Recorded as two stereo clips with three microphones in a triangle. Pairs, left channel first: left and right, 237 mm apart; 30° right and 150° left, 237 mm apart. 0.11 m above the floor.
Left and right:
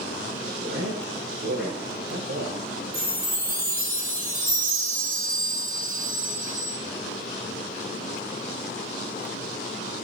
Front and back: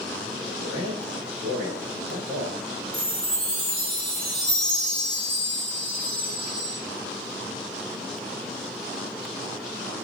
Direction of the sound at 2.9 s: 90° right.